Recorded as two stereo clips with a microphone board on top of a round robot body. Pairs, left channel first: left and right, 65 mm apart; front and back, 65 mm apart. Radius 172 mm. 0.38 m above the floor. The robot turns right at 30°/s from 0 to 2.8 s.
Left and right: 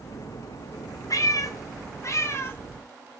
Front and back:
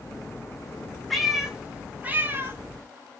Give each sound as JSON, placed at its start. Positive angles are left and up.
{"t": 1.1, "sound": "a cat meowing", "azimuth_deg": 90, "distance_m": 0.6}